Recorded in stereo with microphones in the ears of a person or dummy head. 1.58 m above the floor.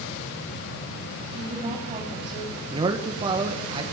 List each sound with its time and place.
1.3 s a woman speaking: 30° right (ahead or behind), 9.5 m
2.7 s a man speaking: 30° right (ahead or behind), 1.7 m